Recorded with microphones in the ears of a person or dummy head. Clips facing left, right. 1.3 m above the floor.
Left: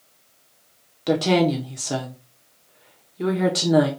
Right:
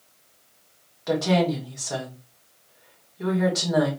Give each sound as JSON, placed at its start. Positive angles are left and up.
{"t": 1.1, "sound": "a woman speaking", "side_deg": 40, "distance_m": 1.0}